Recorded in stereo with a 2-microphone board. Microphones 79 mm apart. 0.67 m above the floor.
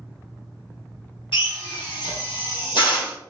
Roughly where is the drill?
Left.